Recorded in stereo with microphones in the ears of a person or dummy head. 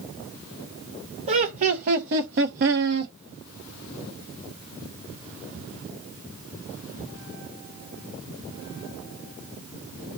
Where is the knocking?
No knocking in this recording.